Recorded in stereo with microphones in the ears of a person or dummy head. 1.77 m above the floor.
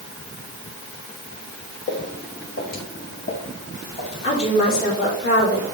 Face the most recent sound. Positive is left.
turn(degrees=50)  # may be behind; listen again after turning